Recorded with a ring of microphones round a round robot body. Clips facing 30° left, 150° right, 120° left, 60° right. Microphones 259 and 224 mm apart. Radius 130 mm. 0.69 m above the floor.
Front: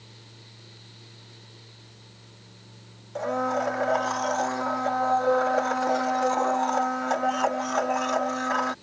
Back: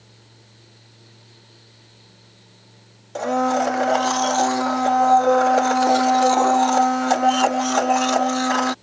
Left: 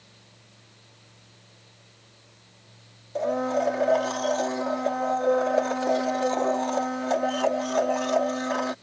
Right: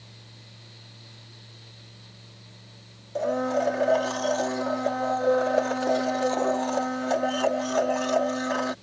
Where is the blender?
145° right.